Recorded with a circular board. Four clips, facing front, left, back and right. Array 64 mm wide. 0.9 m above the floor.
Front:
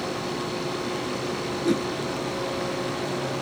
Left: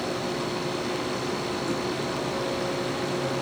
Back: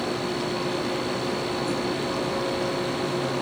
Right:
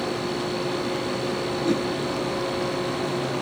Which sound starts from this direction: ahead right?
A whoosh, at 1.6 s.